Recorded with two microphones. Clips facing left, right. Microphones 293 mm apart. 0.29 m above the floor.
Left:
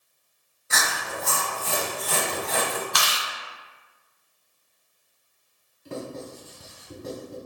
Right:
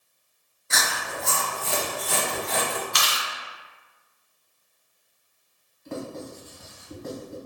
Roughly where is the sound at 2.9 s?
Left.